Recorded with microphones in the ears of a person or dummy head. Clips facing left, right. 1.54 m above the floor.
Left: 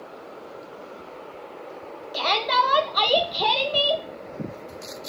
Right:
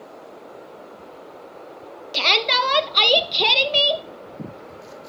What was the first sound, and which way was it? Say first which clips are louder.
A shout: even; 35° right (ahead or behind).